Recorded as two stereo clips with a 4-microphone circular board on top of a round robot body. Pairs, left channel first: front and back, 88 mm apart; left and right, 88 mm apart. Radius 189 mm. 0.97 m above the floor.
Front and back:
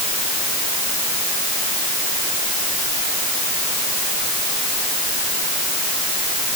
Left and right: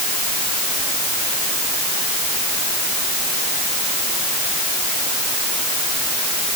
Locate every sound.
Only background noise.